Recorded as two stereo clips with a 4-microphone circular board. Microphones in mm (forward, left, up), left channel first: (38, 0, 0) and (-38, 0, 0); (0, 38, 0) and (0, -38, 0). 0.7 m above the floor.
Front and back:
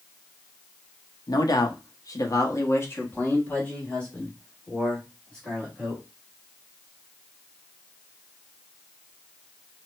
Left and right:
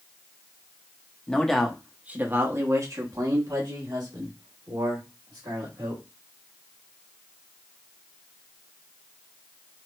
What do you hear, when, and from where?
1.3 s a man speaking: 15° left, 0.8 m; by 6.0 s 80° right, 2.5 m